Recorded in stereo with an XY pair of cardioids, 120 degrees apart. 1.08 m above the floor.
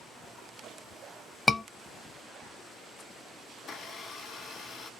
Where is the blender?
50° left, 1.2 m.